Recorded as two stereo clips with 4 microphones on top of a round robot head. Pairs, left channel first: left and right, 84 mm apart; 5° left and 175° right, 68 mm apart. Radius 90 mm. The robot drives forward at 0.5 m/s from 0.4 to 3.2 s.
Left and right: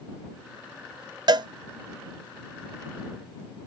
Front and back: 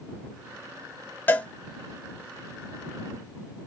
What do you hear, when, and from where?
1.3 s a cowbell: 60° right, 0.7 m; by 1.5 s 65° right, 0.6 m